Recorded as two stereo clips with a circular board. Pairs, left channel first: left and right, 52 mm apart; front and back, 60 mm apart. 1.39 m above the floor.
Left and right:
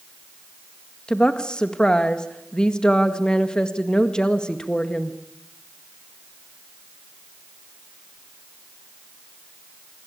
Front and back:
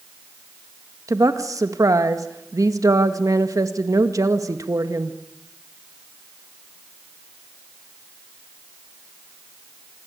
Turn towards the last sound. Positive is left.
turn(degrees=160)